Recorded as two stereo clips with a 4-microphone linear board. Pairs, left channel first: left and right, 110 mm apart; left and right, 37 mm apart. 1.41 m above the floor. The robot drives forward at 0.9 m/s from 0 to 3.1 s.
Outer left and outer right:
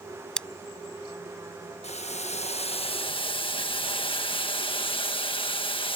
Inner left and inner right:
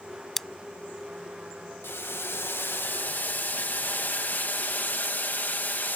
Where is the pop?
I don't hear a pop.